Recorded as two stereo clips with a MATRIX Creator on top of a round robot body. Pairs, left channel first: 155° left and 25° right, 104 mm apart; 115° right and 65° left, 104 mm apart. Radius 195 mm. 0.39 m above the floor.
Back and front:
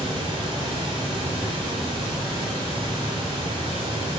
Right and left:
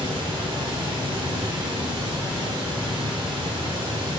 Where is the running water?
25° left, 0.8 m.